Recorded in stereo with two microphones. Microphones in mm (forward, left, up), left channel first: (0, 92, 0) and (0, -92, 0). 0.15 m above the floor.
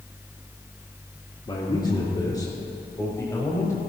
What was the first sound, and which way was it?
A man speaking, 25° left (ahead or behind).